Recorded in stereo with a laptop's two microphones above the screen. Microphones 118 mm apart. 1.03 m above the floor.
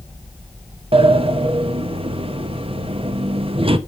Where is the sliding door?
50° right (ahead or behind), 0.7 m.